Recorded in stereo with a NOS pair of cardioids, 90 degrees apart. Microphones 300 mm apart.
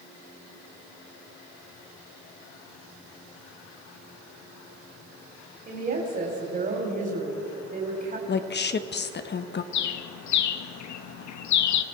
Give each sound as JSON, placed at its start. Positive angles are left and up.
{"t": 5.7, "sound": "a woman speaking", "azimuth_deg": -30, "distance_m": 4.0}
{"t": 8.3, "sound": "a woman speaking", "azimuth_deg": 35, "distance_m": 1.2}
{"t": 9.7, "sound": "a bird", "azimuth_deg": 70, "distance_m": 1.2}